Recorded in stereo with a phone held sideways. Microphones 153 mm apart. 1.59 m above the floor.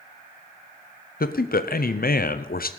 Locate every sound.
1.2 s a man speaking: 75° left (ahead or behind), 0.8 m